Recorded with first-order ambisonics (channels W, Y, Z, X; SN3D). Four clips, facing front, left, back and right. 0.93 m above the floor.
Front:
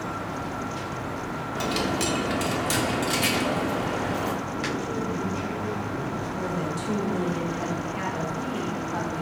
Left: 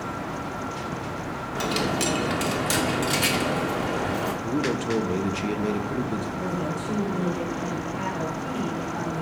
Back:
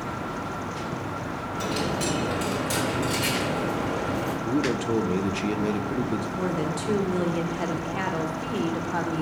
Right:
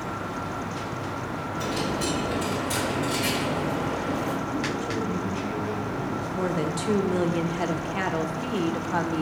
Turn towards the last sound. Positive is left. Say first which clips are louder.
# right 2 dB, back 1 dB
turn(degrees=-115)